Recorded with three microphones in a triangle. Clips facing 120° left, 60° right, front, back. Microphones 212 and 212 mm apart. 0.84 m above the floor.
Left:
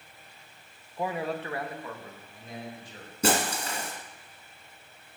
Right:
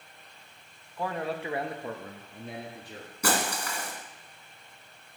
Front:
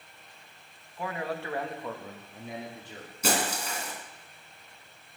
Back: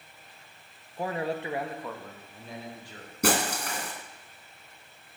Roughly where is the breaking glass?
Behind.